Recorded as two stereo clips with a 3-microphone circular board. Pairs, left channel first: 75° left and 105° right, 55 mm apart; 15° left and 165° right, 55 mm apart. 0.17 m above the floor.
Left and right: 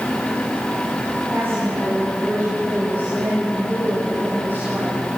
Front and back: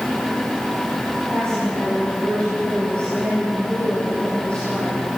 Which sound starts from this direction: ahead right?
A woman speaking, at 1.3 s.